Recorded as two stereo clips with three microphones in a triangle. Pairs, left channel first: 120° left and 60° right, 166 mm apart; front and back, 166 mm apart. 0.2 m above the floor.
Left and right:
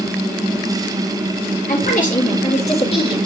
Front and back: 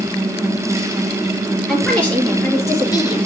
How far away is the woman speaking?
About 4 m.